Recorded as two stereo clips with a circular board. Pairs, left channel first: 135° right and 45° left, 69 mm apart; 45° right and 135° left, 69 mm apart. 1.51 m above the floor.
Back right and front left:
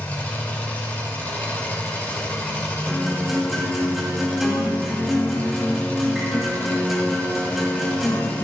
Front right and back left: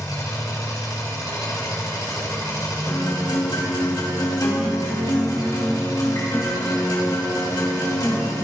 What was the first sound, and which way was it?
An engine running, 70° right.